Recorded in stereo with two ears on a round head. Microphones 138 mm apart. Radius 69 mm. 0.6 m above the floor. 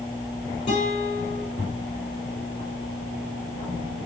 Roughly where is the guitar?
Left.